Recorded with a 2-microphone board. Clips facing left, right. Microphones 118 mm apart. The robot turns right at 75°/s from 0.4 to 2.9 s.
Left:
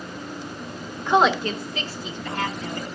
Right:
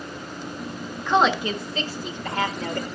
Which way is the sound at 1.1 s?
15° left (ahead or behind).